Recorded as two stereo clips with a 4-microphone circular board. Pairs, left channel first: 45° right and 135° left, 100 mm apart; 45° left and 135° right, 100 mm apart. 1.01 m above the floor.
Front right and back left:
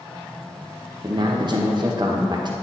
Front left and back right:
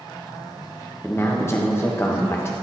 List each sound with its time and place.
1.0 s a man speaking: 105° left, 0.8 m